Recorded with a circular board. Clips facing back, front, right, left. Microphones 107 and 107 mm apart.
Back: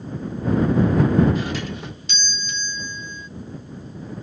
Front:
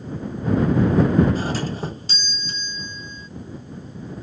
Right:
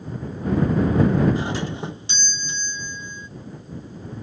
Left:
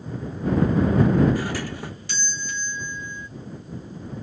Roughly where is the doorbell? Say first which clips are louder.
Front 2 dB, right 2 dB; ahead right.